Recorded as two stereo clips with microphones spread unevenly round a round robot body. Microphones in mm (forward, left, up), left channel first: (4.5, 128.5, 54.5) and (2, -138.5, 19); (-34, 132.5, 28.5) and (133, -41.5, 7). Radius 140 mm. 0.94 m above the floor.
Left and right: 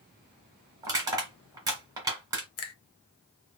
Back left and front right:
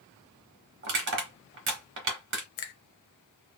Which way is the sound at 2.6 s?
130° left.